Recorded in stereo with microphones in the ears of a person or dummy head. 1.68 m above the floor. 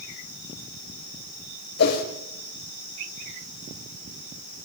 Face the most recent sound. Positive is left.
turn(degrees=55)  # may be behind; listen again after turning